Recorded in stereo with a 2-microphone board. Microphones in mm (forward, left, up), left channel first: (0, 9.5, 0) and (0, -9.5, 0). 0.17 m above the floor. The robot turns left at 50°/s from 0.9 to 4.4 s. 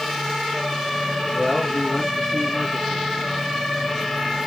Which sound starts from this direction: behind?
A man speaking, at 1.3 s.